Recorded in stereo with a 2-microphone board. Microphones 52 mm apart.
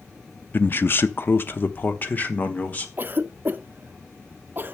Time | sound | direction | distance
0.5 | a man speaking | 40° left (ahead or behind) | 0.6 m
3.0 | a cough | 40° right (ahead or behind) | 0.7 m